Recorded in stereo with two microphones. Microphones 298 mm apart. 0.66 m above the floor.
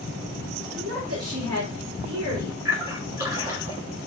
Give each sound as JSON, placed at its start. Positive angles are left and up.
{"t": 0.8, "sound": "a woman speaking", "side_deg": -45, "distance_m": 1.0}
{"t": 2.6, "sound": "a splash", "side_deg": -10, "distance_m": 1.2}